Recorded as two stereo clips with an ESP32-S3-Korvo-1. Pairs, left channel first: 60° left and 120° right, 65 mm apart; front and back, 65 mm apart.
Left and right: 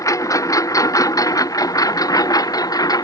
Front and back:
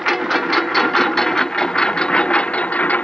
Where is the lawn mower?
90° left; by 3.0 s 65° left.